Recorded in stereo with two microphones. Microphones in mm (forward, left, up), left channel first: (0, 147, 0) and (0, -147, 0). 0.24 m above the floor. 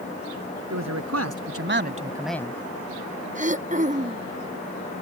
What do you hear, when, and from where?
0.7 s a man speaking: 70° right (ahead or behind); by 2.5 s 20° left (ahead or behind)
3.4 s throat clearing: 25° right (ahead or behind)